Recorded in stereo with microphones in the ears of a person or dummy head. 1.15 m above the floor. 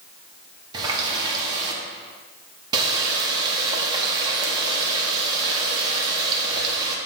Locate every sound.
0.7 s a running tap: 30° right (ahead or behind), 1.4 m